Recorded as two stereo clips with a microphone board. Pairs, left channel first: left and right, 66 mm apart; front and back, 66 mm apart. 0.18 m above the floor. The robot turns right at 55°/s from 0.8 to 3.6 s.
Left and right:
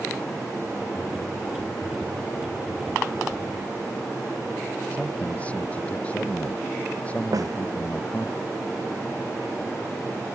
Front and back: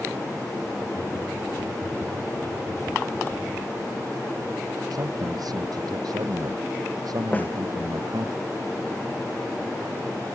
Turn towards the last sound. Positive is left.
turn(degrees=-65)